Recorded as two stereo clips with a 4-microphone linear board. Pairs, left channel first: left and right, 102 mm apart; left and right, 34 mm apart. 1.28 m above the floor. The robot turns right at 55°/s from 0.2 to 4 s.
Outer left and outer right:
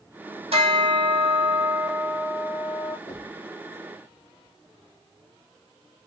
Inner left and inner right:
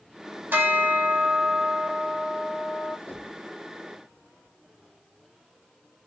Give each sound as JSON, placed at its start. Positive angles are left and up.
{"t": 0.5, "sound": "a bell", "azimuth_deg": -75, "distance_m": 2.5}
{"t": 3.1, "sound": "knocking", "side_deg": 80, "distance_m": 3.0}